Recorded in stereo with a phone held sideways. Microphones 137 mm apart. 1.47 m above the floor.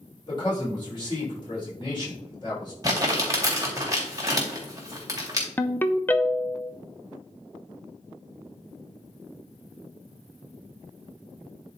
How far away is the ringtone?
About 0.6 m.